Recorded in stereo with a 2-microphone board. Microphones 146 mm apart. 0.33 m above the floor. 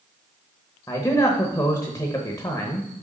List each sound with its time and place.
0.9 s a man speaking: 25° left (ahead or behind), 0.9 m